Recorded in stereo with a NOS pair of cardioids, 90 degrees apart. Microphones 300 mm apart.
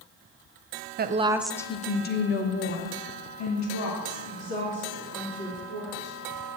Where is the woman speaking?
35° right, 0.6 m; by 6.2 s 70° left, 3 m.